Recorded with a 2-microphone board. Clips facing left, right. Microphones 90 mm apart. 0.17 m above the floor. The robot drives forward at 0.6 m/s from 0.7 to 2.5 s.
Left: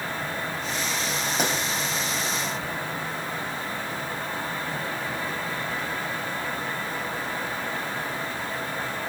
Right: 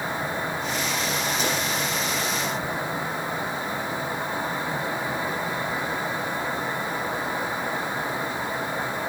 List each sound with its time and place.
1.4 s a pop: 60° left (ahead or behind), 8.5 m